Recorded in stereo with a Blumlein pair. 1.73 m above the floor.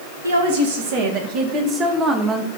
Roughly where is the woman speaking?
Ahead right.